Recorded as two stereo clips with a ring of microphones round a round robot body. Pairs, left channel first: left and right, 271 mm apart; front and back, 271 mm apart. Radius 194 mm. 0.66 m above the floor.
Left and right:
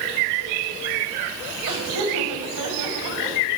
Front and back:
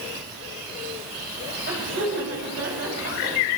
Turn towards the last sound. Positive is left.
turn(degrees=-125)